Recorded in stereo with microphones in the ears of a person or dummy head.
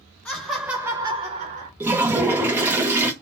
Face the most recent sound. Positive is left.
turn(degrees=-15)  # may be behind; listen again after turning